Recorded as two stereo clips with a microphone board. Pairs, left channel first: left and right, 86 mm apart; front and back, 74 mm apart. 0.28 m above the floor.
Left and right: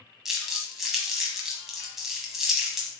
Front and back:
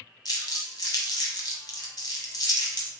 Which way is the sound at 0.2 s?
5° right.